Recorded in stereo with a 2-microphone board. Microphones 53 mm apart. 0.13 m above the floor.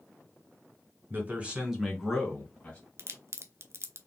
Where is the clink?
No clink in this recording.